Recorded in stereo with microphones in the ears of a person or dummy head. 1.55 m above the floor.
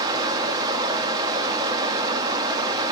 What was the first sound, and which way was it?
Running water, 25° right (ahead or behind).